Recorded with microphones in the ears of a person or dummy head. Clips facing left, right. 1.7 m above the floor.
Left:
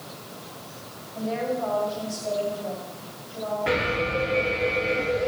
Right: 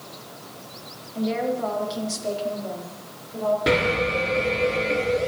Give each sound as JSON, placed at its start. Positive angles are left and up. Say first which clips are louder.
{"t": 1.1, "sound": "a woman speaking", "louder": "right 3 dB", "side_deg": -40, "distance_m": 4.5}
{"t": 3.7, "sound": "an alarm", "louder": "right 4 dB", "side_deg": -55, "distance_m": 6.5}